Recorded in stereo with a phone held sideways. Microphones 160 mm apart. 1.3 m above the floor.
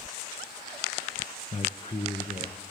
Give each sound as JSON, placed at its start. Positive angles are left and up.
{"t": 1.5, "sound": "a man speaking", "side_deg": 30, "distance_m": 0.9}